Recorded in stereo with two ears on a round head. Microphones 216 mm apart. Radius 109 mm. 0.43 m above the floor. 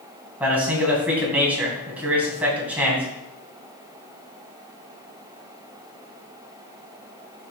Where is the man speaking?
5° right (ahead or behind), 2.5 m.